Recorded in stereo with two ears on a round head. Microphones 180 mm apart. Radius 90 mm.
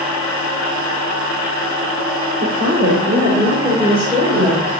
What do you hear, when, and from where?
2.4 s a woman speaking: 50° right (ahead or behind), 1.9 m; by 4.7 s centre (ahead or behind), 3 m